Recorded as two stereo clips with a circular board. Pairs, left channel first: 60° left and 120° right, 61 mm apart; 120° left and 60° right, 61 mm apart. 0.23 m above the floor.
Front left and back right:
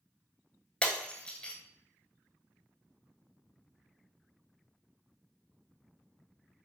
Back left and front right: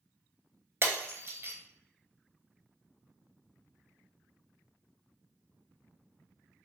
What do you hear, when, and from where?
0.8 s breaking glass: 15° right, 0.9 m